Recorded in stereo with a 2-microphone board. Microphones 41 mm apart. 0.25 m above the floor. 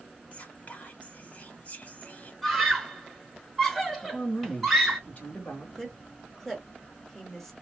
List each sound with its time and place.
0.3 s whispering: 40° left (ahead or behind), 1.1 m
2.4 s a scream: 5° left (ahead or behind), 1.4 m
4.0 s a woman speaking: 40° left (ahead or behind), 2.5 m
5.8 s a woman speaking: 5° left (ahead or behind), 1.5 m